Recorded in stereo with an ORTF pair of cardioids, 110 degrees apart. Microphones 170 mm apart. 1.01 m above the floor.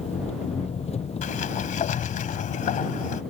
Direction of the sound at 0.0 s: 40° left.